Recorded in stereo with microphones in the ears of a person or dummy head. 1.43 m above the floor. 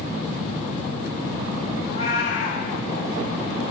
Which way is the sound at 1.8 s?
70° left (ahead or behind).